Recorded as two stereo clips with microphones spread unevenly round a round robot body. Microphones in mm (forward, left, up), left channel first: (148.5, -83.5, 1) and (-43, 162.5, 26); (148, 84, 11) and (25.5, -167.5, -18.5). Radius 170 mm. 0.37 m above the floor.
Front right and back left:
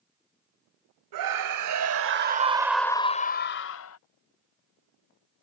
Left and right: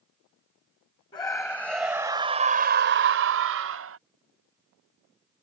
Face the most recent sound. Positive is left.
turn(degrees=-90)